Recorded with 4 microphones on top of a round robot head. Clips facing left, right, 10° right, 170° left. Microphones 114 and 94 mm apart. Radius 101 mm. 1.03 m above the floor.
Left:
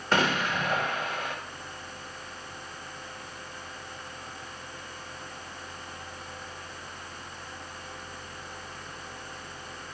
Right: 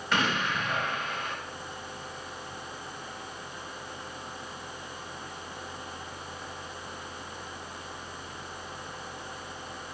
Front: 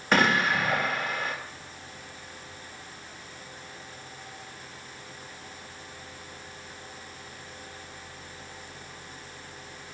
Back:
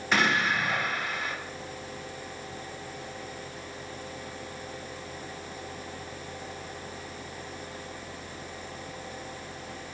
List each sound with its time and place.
0.1 s an explosion: 35° left, 2.5 m